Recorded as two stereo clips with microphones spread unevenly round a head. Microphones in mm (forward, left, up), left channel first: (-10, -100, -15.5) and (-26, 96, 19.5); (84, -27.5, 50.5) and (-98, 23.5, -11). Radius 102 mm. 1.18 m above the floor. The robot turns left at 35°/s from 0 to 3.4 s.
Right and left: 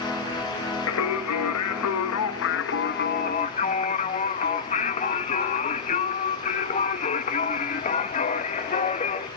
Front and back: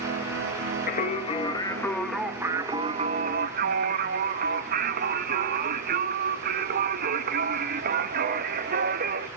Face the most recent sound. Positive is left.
turn(degrees=-145)